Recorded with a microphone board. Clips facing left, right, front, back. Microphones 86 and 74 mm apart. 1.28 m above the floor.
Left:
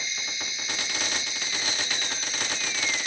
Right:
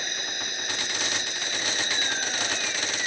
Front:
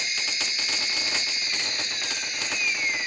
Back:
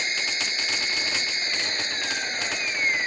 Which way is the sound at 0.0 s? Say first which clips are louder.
Right 2 dB, back 3 dB; 130° right.